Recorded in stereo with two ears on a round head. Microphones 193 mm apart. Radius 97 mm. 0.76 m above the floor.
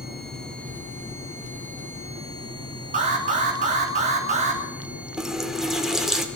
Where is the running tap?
5° right (ahead or behind), 1.3 m.